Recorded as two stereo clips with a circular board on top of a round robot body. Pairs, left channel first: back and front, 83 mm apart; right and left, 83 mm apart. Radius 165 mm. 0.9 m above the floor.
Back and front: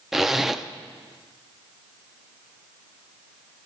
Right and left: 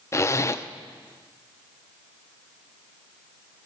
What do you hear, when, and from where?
0.1 s a zipper: 85° right, 0.6 m